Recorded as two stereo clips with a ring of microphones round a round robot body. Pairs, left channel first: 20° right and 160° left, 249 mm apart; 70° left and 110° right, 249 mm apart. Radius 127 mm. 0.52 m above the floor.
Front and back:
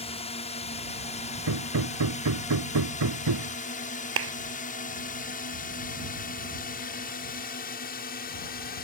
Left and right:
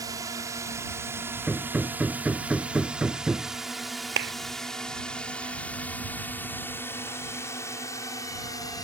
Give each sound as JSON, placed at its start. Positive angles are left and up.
{"t": 0.0, "sound": "a drone", "azimuth_deg": -55}
{"t": 1.5, "sound": "hammering", "azimuth_deg": 160}
{"t": 4.2, "sound": "a clap", "azimuth_deg": -160}